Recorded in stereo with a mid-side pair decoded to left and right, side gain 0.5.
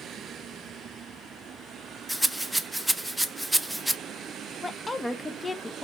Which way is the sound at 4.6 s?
15° left.